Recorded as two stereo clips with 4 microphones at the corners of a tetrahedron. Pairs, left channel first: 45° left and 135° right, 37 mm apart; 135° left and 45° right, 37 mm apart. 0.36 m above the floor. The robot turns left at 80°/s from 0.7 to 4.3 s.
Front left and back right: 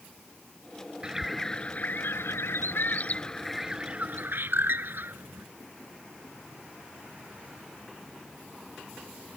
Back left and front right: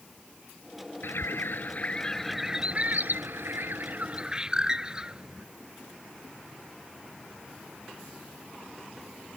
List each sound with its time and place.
1.0 s a bird: 150° left; by 5.5 s 110° right